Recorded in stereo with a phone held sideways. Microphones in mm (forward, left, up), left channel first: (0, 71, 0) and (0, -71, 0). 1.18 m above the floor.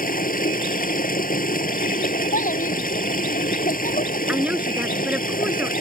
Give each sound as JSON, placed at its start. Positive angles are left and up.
{"t": 0.0, "sound": "running water", "side_deg": 80}
{"t": 2.3, "sound": "a child speaking", "side_deg": 70}
{"t": 4.3, "sound": "a woman speaking", "side_deg": -10}